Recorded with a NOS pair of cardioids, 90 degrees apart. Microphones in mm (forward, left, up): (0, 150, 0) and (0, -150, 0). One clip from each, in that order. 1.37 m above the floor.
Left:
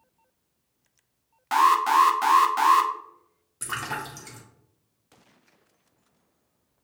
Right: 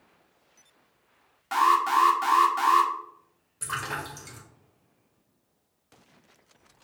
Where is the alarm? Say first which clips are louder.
Left 3 dB; 25° left, 0.7 m.